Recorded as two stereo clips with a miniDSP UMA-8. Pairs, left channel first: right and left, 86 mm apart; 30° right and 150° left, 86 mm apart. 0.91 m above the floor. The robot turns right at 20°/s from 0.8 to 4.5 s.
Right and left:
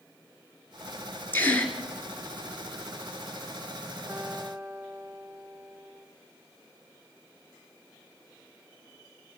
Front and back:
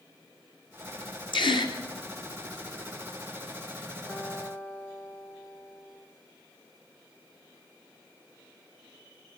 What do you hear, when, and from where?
1.3 s a gasp: 25° right, 2.5 m; by 1.7 s 15° right, 2.5 m
4.1 s a guitar: 20° left, 2.5 m; by 6.1 s 30° left, 2.5 m